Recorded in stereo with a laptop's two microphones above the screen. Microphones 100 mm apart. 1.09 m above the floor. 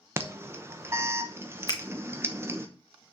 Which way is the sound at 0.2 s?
25° right (ahead or behind).